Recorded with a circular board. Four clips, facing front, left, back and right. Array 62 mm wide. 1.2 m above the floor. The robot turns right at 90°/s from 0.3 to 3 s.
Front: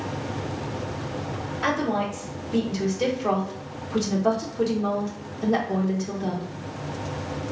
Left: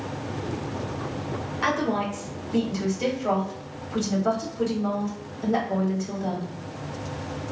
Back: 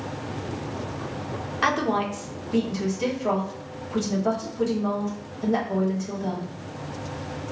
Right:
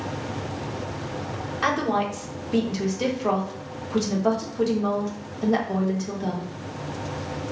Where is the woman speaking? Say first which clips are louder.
Right 2 dB, back 2 dB; 175° right, 1.3 m; by 6.5 s 50° right, 1.3 m.